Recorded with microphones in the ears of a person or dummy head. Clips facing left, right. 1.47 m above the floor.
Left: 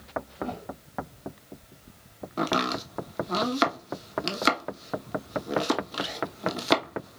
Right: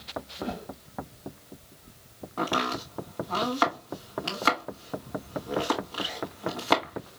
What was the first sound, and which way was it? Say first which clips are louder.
A whoosh: right 2 dB; 10° right (ahead or behind).